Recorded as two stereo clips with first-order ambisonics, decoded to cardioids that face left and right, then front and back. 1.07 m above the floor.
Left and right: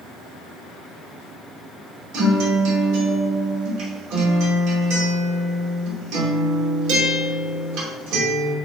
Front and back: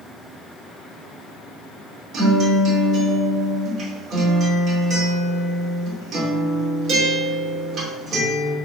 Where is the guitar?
115° right, 2.5 m.